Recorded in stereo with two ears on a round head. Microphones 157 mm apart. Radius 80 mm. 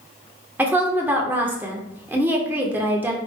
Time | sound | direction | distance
0.6 | a woman speaking | 10° right (ahead or behind) | 0.7 m